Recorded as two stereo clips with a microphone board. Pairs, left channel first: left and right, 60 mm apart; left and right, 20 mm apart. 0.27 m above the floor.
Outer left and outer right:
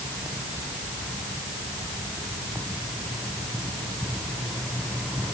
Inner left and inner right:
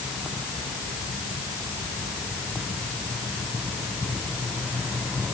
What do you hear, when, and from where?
Only background noise.